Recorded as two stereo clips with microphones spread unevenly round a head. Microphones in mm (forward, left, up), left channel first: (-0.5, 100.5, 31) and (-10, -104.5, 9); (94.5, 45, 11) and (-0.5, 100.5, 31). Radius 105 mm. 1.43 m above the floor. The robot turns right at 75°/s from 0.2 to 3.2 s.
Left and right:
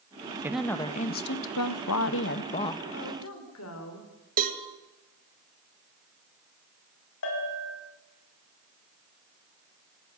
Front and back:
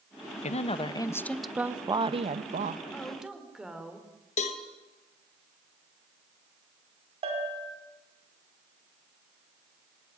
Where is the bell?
120° left, 5.5 m.